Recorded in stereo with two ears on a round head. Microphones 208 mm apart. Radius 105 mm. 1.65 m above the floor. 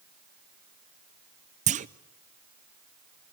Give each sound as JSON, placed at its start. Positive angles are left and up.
{"t": 1.7, "sound": "a clunk", "side_deg": -30, "distance_m": 0.6}